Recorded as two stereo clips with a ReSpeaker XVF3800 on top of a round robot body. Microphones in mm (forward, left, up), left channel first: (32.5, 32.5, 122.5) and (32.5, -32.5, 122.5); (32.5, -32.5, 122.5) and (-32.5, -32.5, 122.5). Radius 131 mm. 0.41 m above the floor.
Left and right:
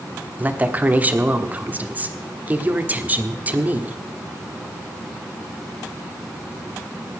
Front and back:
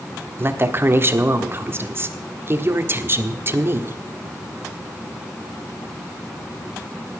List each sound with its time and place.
0.4 s a woman speaking: 145° right, 1.5 m